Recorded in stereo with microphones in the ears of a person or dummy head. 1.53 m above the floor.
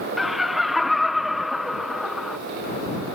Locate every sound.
0.2 s laughter: 5° right (ahead or behind)